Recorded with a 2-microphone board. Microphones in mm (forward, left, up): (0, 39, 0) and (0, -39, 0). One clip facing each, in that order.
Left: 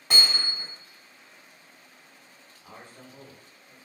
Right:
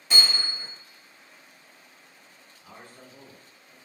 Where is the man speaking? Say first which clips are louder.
Left 1 dB; 20° left (ahead or behind), 1.4 m.